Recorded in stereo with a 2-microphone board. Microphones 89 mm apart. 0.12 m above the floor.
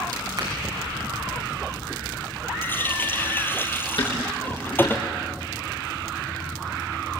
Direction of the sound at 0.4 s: 40° right (ahead or behind).